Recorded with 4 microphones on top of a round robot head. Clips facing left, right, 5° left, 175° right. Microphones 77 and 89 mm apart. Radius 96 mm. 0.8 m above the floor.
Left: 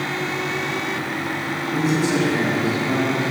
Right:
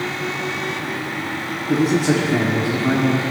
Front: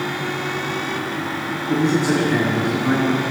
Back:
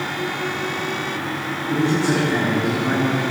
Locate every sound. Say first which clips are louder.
1.7 s a man speaking: right 4 dB, front 1 dB; 70° right, 2.5 m; by 3.2 s 80° right, 3.5 m